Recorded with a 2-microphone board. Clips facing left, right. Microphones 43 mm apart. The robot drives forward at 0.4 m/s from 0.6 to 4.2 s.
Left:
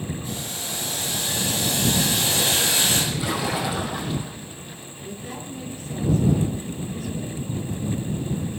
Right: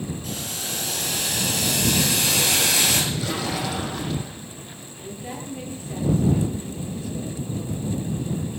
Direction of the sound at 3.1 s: 15° left (ahead or behind).